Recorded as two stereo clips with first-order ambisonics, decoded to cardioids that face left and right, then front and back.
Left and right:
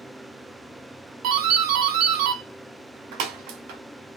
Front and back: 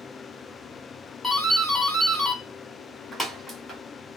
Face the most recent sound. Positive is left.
turn(degrees=-90)